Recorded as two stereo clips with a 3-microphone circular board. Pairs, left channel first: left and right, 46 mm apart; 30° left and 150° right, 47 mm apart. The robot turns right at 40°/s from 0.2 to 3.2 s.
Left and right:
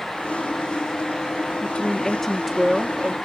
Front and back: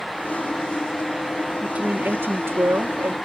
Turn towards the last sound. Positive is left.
turn(degrees=-150)